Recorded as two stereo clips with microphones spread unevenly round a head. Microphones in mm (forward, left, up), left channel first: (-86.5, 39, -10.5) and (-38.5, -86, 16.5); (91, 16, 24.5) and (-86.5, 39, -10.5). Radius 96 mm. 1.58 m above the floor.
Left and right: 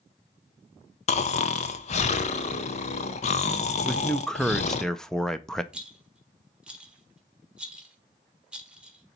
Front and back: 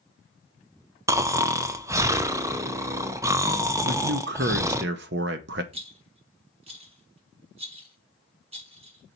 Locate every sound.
1.1 s snoring: 95° left, 0.6 m
3.8 s a man speaking: 155° right, 0.7 m
5.7 s a rattle: 130° right, 1.5 m